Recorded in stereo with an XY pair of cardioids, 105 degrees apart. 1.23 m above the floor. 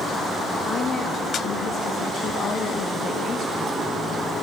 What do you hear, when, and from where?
0.7 s a woman speaking: 55° left, 1.7 m